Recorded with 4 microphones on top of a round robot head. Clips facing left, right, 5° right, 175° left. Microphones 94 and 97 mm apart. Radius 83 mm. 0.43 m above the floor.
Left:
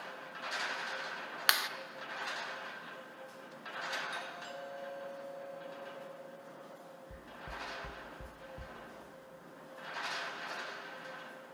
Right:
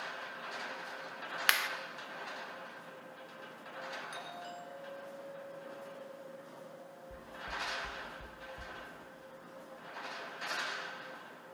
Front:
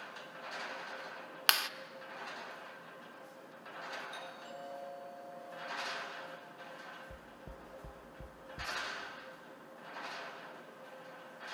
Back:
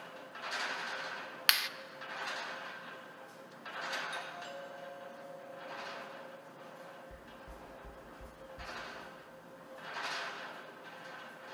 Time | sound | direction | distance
1.5 | a clap | 25° left | 0.9 m
4.1 | a doorbell | 175° left | 8.5 m
7.1 | knocking | 25° left | 1.1 m